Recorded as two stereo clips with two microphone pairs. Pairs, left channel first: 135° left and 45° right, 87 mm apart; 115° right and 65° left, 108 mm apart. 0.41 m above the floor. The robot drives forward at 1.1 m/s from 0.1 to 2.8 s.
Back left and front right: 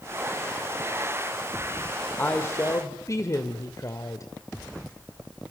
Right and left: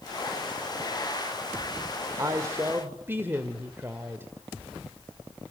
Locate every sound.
2.2 s a woman speaking: 80° left, 1.7 m; by 4.3 s 120° left, 1.7 m